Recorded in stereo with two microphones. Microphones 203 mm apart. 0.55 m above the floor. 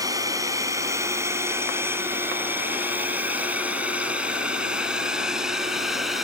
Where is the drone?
15° right (ahead or behind); by 6.2 s centre (ahead or behind).